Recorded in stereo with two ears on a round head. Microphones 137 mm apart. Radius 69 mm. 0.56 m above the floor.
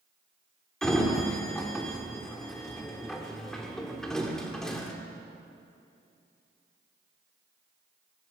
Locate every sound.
0.8 s a sliding door: 5° left (ahead or behind), 1.0 m